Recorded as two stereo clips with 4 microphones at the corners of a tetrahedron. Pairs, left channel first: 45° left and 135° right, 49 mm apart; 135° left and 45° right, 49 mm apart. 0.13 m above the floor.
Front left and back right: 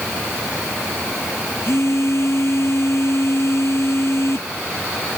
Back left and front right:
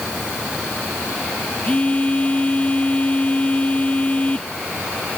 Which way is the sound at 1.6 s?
75° left.